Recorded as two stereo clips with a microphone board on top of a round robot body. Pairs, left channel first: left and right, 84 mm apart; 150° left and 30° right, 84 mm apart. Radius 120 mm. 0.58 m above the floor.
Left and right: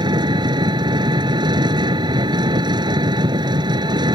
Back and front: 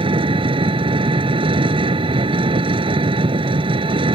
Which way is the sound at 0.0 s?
55° right.